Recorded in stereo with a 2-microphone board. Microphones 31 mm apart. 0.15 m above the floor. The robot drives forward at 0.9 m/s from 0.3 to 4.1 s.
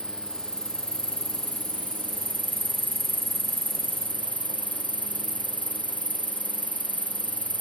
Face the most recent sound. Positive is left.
turn(degrees=-60)  # may be behind; listen again after turning